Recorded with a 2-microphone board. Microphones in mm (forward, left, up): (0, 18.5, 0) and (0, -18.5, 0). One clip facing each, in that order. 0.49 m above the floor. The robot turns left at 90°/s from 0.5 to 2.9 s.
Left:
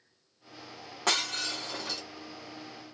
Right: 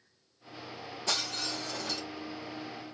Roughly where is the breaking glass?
Left.